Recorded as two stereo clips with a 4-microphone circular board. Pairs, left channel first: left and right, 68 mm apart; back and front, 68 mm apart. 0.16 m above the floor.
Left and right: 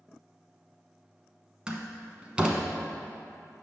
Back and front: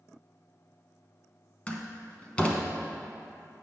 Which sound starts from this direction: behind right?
A door slam, at 1.7 s.